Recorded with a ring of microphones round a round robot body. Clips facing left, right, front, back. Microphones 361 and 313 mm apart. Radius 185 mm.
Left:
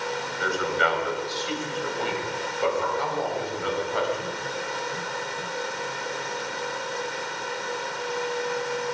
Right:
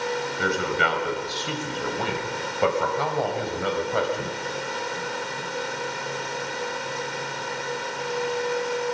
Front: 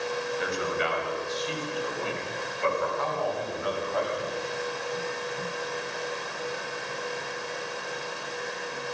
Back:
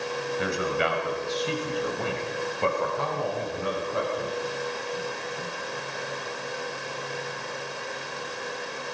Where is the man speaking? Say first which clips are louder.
Left 1 dB, back 5 dB; 150° right, 5.5 m; by 4.4 s 105° right, 5.5 m.